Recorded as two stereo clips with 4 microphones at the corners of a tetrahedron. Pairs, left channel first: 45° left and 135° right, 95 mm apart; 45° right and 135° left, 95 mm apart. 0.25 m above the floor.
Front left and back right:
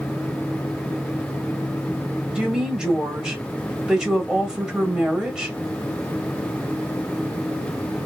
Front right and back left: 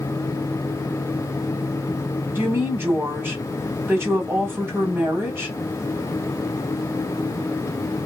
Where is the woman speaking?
150° left, 1.2 m.